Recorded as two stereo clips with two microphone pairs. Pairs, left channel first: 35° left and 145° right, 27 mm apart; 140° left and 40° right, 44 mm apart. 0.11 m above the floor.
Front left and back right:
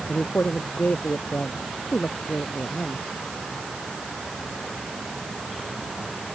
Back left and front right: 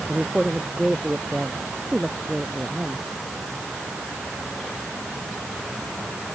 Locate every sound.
0.1 s a woman speaking: 40° left; by 3.0 s 35° left